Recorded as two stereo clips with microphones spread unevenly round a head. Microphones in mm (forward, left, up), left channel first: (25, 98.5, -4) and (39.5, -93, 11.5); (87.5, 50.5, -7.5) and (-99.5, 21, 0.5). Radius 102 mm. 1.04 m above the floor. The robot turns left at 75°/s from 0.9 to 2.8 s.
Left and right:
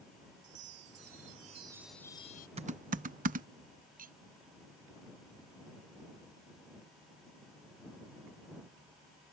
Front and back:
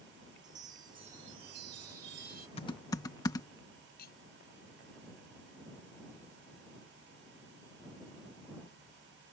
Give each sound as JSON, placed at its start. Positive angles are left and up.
{"t": 0.4, "sound": "a chime", "azimuth_deg": -100}
{"t": 2.6, "sound": "typing on a keyboard", "azimuth_deg": -35}
{"t": 4.0, "sound": "cutlery clinking", "azimuth_deg": -40}